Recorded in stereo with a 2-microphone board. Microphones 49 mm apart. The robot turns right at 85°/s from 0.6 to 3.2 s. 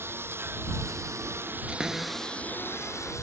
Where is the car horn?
No car horn in this recording.